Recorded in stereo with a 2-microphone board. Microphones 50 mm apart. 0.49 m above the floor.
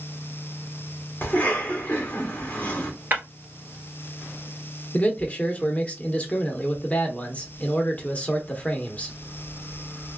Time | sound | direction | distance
1.2 | a cough | 30° left (ahead or behind) | 1.7 m
3.1 | breaking glass | 40° right (ahead or behind) | 1.5 m
4.9 | a man speaking | 30° left (ahead or behind) | 0.8 m